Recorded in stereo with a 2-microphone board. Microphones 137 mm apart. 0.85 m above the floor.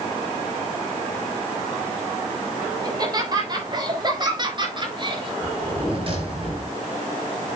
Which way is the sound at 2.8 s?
30° right (ahead or behind).